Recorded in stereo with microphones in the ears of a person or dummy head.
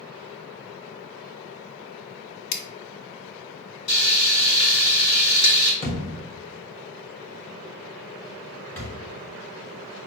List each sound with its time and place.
2.5 s scissors: 60° left (ahead or behind), 0.7 m
3.9 s frying: 70° left (ahead or behind), 0.9 m
5.8 s a thud: 15° left (ahead or behind), 1.0 m